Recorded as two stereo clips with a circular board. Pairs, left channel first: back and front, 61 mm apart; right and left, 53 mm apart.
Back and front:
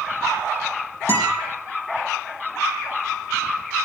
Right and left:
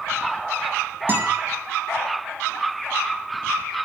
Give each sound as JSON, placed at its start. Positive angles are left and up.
{"t": 1.1, "sound": "a guitar", "azimuth_deg": 35, "distance_m": 5.5}